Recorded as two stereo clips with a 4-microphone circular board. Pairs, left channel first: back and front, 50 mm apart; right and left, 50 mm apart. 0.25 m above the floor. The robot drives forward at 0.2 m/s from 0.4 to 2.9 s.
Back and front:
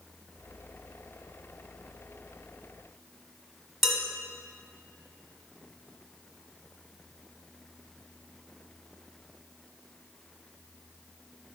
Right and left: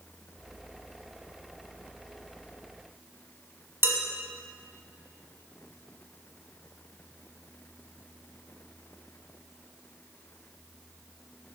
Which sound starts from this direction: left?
Dishes clattering, at 3.8 s.